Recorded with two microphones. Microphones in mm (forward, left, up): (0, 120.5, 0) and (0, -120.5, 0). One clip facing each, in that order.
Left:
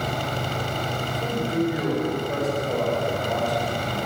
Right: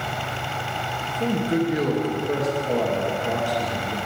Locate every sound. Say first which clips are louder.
1.1 s a man speaking: right 6 dB; 80° right, 1.8 m